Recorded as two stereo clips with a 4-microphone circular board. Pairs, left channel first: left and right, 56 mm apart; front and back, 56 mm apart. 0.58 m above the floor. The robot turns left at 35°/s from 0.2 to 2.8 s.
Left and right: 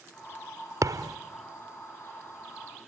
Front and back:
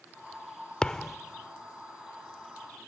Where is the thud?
75° right, 0.6 m; by 1.2 s 85° right, 0.6 m.